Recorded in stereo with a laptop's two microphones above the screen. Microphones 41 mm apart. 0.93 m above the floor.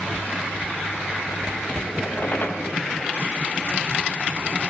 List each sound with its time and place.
2.0 s a squeak: 50° left (ahead or behind), 4 m